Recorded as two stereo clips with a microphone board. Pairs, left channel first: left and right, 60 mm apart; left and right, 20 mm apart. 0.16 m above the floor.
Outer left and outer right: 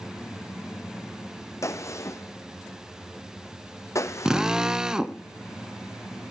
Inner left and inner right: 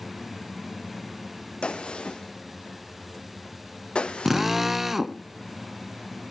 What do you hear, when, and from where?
1.6 s a gunshot: 60° left (ahead or behind), 1.9 m
4.2 s a drill: 15° right (ahead or behind), 0.9 m